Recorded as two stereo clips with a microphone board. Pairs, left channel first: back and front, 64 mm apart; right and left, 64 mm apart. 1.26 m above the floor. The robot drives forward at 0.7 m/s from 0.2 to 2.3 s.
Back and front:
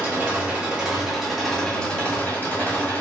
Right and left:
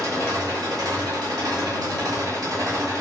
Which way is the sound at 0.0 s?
60° left.